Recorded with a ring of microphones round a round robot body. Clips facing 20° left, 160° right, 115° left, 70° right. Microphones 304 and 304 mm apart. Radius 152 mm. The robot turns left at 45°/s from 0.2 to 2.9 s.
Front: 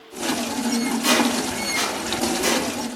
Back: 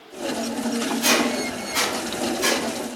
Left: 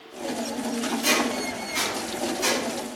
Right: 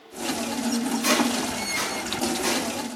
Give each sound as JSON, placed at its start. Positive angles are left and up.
{"t": 1.0, "sound": "a squeak", "azimuth_deg": -135, "distance_m": 1.8}